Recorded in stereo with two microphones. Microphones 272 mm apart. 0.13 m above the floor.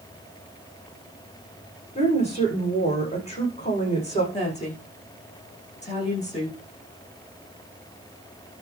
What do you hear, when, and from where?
1.9 s a woman speaking: 25° left (ahead or behind), 9 m
4.3 s a woman speaking: 25° left (ahead or behind), 7 m